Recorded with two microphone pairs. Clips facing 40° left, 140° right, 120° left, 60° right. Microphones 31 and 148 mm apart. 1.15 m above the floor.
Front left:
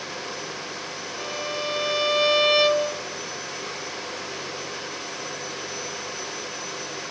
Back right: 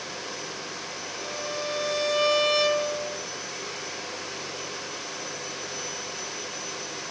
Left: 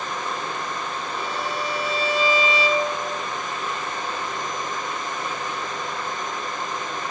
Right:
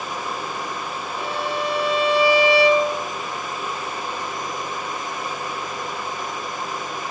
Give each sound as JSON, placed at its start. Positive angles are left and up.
{"t": 1.2, "sound": "a violin", "azimuth_deg": -30, "distance_m": 1.6}